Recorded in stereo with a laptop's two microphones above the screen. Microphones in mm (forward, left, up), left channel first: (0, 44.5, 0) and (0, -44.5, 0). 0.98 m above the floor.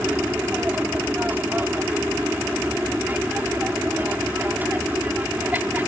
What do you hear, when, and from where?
0.0 s an aircraft: 20° right (ahead or behind)